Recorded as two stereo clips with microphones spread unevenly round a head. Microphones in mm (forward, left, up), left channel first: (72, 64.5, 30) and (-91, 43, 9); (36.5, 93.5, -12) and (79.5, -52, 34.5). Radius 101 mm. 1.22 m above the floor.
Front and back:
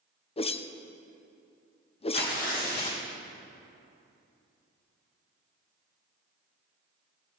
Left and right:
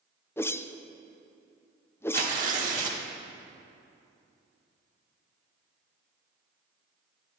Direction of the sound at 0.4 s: 60° left.